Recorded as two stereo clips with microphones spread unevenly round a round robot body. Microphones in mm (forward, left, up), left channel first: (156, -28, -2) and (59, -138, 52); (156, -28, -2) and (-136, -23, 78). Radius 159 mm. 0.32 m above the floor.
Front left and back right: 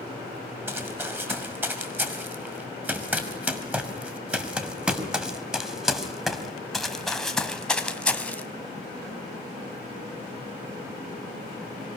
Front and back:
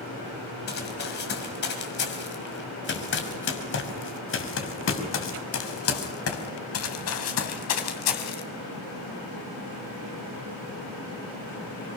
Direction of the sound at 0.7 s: 60° right.